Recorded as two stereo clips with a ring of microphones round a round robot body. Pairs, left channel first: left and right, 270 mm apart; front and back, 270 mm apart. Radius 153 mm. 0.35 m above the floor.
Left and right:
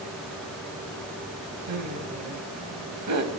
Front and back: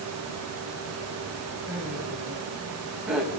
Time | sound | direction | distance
1.7 | laughter | 95° right | 2.5 m